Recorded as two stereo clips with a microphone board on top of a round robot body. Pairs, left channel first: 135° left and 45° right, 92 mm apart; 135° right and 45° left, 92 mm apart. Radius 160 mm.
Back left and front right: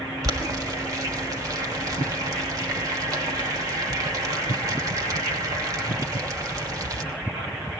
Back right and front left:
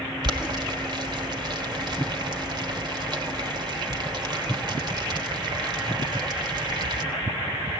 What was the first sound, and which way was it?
Boiling, 5° left.